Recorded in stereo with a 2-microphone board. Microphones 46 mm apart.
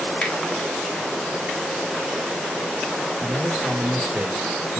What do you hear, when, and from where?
0.2 s a finger snap: 15° left (ahead or behind), 1.5 m
3.2 s a man speaking: 40° right (ahead or behind), 2.0 m